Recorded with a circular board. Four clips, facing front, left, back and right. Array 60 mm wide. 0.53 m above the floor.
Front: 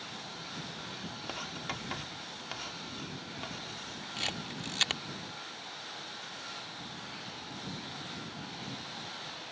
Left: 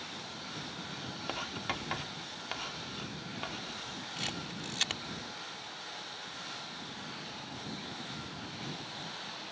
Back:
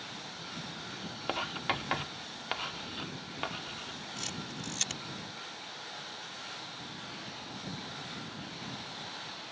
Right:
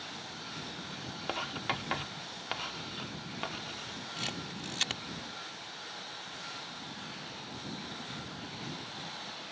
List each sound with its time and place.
1.3 s writing: 160° right
4.2 s a camera shutter: straight ahead